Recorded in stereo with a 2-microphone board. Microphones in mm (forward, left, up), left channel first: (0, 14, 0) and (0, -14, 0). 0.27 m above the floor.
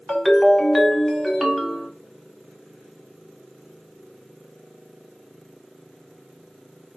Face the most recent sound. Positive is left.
turn(degrees=10)  # may be behind; listen again after turning